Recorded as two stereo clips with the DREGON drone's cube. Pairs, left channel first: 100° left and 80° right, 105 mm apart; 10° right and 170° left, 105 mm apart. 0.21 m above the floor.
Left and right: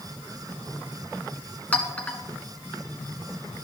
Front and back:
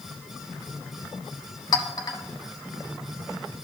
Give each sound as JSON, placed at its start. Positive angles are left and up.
{"t": 1.7, "sound": "a clink", "azimuth_deg": 25, "distance_m": 1.2}